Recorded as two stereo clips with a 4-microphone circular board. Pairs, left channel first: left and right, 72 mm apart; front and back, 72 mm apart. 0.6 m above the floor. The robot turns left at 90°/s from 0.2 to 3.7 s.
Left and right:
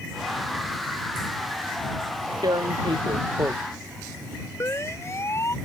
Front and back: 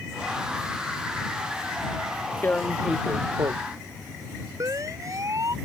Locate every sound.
2.4 s tearing paper: 60° right; by 3.5 s 160° right
4.6 s a siren: 140° left